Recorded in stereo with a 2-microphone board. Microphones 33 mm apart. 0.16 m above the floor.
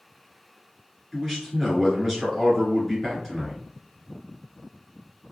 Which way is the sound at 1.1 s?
Centre (ahead or behind).